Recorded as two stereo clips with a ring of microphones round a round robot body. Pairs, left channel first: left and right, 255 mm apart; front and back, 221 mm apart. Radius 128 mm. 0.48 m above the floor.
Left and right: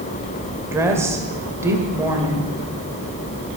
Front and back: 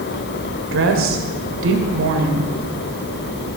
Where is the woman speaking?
170° right, 2 m.